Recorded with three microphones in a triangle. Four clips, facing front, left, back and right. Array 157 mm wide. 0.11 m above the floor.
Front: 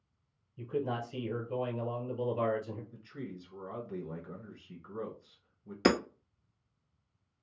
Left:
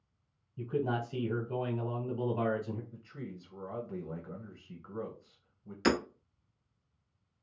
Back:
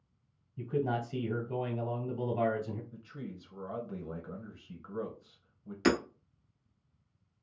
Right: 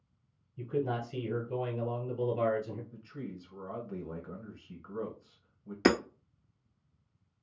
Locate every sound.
0.6 s a man speaking: 155° left, 1.7 m
2.9 s a man speaking: 170° right, 1.2 m
5.8 s hammering: 55° right, 0.6 m